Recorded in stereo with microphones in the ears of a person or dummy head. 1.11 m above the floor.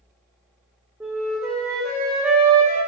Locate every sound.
1.0 s a flute: centre (ahead or behind), 0.8 m